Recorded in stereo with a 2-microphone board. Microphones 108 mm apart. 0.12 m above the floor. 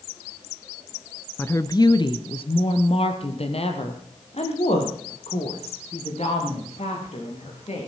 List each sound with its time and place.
1.4 s a woman speaking: 20° left (ahead or behind), 1.1 m; by 7.9 s 75° left (ahead or behind), 8 m